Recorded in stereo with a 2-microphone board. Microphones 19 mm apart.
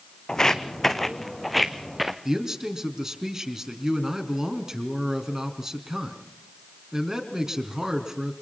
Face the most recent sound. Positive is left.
turn(degrees=-30)  # may be behind; listen again after turning